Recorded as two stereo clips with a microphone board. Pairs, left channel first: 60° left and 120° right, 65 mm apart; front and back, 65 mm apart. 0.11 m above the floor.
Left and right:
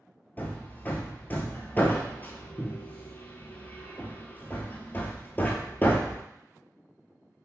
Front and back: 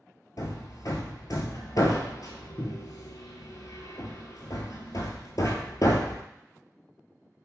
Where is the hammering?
Straight ahead, 0.8 m.